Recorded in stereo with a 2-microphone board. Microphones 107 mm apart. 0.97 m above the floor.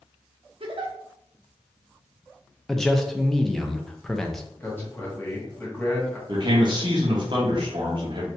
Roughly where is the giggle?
Right.